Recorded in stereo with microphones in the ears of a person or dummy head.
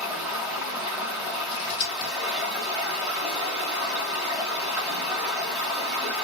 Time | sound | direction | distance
0.0 | running water | 5° right (ahead or behind) | 1.4 m
1.5 | scissors | 45° left (ahead or behind) | 1.5 m